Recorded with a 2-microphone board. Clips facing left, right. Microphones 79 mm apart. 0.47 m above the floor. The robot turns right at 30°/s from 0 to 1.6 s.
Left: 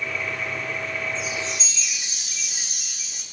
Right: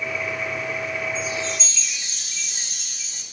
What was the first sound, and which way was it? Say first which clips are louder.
A chime: right 2 dB; 15° left (ahead or behind).